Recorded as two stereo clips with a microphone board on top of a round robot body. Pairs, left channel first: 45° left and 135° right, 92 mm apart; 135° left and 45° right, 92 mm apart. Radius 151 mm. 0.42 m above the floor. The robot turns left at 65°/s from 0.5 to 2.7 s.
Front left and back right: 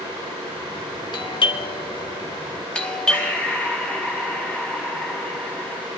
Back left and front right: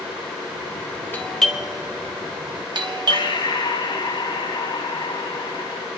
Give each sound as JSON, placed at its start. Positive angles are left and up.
{"t": 1.1, "sound": "a doorbell", "azimuth_deg": 70, "distance_m": 2.5}
{"t": 3.1, "sound": "breathing", "azimuth_deg": 115, "distance_m": 3.5}